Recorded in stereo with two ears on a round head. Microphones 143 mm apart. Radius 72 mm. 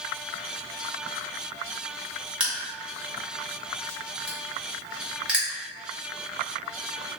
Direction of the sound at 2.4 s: 5° right (ahead or behind).